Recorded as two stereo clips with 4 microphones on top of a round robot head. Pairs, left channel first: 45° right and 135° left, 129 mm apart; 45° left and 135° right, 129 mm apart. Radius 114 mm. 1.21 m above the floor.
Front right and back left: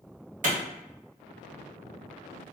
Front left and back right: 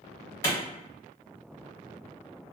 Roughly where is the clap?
Behind left.